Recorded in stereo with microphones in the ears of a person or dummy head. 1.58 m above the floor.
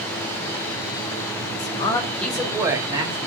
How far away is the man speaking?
About 0.7 m.